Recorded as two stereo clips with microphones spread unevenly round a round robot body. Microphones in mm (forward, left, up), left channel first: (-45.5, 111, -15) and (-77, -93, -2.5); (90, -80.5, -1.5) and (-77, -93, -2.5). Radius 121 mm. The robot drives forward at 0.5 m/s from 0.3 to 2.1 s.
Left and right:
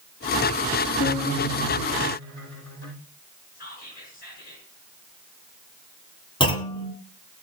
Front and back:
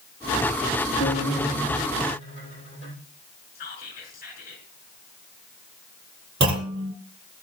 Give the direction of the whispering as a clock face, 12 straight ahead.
11 o'clock.